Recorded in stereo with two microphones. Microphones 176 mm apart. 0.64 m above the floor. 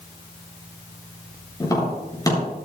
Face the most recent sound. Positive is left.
turn(degrees=20)  # may be behind; listen again after turning